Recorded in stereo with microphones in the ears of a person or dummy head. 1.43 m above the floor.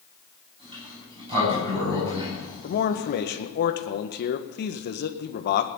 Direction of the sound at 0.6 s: 25° right (ahead or behind).